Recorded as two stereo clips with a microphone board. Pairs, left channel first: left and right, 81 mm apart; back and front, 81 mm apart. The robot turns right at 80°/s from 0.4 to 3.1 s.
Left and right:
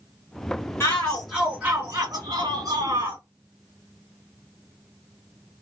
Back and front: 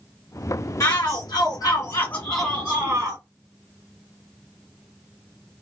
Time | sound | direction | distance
0.8 | a shout | 135° left | 1.7 m